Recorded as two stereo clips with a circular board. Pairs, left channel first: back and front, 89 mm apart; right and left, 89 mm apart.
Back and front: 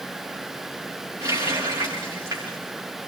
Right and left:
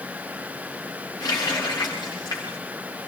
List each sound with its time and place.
1.2 s a running tap: 45° right, 7.5 m